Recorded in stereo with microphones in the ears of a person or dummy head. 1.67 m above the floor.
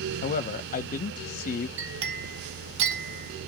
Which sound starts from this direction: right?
A clink, at 1.8 s.